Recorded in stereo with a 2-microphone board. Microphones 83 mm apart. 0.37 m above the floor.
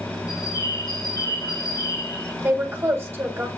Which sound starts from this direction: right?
A woman speaking, at 2.4 s.